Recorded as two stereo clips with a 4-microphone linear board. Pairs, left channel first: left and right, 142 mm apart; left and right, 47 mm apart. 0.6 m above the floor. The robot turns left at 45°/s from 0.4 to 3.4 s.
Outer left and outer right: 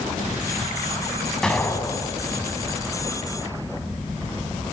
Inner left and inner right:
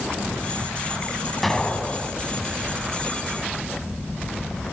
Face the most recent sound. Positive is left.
turn(degrees=85)